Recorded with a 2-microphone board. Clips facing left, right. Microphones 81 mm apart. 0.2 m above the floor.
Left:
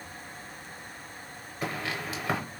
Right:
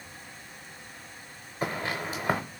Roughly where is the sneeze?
I don't hear a sneeze.